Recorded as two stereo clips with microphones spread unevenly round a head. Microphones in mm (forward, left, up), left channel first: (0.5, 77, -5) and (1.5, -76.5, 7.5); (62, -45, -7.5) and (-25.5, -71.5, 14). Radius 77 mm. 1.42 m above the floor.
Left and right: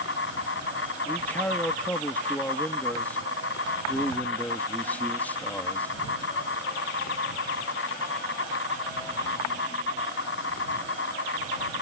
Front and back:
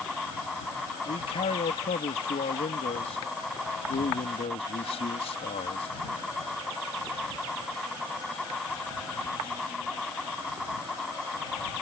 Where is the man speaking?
10° left.